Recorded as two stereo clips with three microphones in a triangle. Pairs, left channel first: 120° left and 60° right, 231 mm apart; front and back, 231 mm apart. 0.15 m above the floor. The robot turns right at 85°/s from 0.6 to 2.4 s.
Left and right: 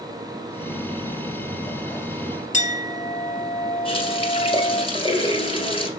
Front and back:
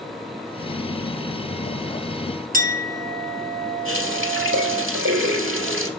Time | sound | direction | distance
2.5 | a clink | 155° left | 1.3 m
3.9 | a running tap | 175° right | 2.0 m